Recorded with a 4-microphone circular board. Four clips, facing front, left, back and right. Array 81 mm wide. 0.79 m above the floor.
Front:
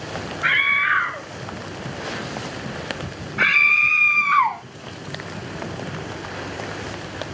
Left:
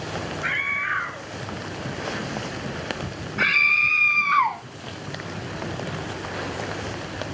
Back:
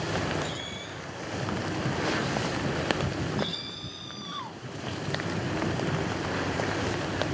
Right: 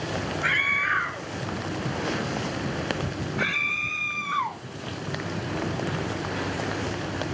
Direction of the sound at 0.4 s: 5° right.